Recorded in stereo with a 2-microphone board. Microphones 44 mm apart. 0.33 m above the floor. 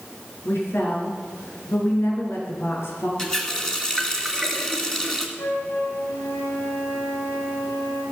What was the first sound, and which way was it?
A woman speaking, 65° left (ahead or behind).